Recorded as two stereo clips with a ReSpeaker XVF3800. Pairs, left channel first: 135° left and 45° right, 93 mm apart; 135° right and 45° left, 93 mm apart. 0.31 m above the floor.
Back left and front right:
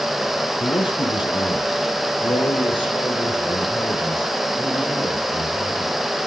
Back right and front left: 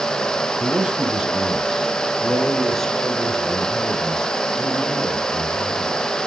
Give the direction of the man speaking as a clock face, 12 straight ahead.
8 o'clock.